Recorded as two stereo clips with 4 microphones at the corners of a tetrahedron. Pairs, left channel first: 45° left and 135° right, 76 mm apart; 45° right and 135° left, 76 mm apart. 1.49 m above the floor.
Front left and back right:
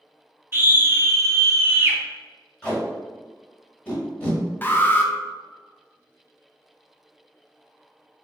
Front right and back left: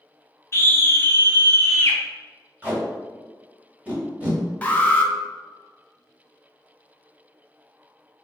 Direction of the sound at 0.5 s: 90° right.